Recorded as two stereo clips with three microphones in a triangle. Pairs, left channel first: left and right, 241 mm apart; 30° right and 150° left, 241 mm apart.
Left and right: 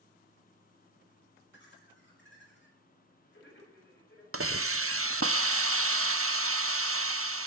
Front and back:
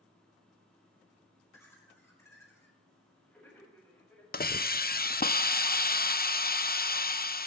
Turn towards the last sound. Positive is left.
turn(degrees=-80)